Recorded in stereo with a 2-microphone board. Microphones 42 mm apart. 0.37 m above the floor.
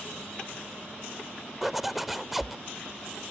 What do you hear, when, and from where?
1.6 s a zipper: 5° right (ahead or behind)